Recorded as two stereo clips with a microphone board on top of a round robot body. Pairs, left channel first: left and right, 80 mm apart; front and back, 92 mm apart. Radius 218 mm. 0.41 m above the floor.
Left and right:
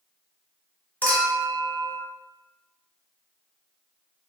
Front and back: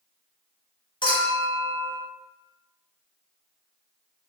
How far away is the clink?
About 1.0 m.